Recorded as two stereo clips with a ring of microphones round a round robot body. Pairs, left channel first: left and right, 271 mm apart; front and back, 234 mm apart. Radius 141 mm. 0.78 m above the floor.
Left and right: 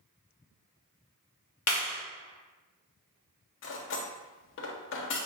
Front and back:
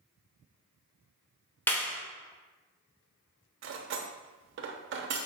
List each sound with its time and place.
1.7 s a clap: 80° left, 0.8 m
3.6 s cutlery clinking: 140° left, 0.6 m